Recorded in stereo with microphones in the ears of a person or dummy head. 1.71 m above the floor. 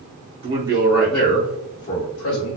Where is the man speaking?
25° right (ahead or behind), 0.7 m; by 2.6 s 60° left (ahead or behind), 1.0 m.